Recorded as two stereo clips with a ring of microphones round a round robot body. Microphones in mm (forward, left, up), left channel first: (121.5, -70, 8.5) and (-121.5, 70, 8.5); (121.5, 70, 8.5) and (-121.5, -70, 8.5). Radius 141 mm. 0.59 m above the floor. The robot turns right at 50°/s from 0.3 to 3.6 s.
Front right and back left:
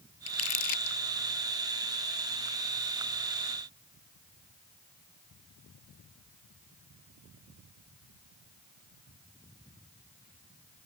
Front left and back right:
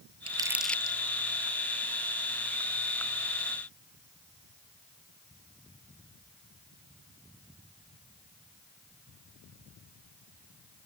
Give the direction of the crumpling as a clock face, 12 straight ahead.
3 o'clock.